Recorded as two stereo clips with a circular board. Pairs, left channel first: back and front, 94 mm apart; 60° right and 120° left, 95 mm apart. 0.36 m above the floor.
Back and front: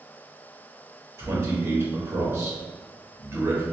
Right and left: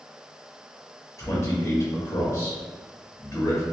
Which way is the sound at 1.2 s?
30° right.